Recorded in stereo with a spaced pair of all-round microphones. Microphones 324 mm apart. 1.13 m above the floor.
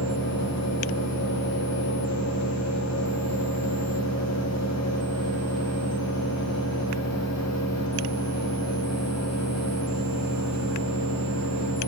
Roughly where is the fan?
Left.